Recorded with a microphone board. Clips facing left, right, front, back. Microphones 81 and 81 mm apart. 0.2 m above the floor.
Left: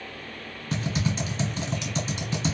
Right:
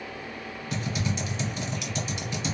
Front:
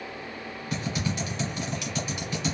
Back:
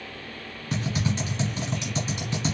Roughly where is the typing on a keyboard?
Behind left.